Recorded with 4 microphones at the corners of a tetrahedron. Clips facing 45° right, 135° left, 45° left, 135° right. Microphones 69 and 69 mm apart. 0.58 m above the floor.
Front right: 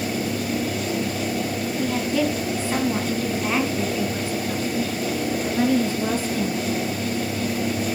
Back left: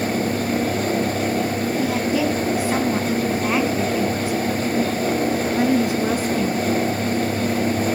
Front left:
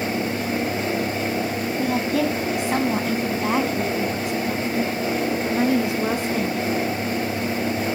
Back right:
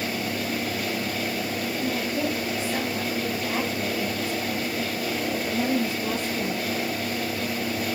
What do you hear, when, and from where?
1.8 s a woman speaking: 55° left, 4 m; by 6.6 s 60° left, 7 m